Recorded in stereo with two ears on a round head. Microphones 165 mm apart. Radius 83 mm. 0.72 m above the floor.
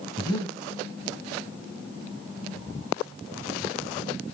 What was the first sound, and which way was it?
Breathing, 25° left (ahead or behind).